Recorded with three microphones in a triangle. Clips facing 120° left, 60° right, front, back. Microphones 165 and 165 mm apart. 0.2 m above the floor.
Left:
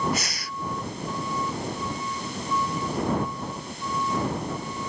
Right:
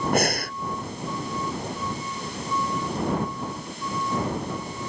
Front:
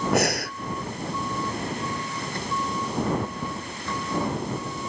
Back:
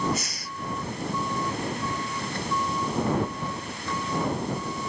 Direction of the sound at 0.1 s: 25° right.